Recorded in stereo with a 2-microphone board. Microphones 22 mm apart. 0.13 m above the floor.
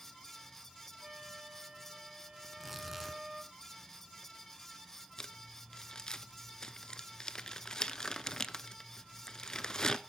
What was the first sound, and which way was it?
A flute, 25° right (ahead or behind).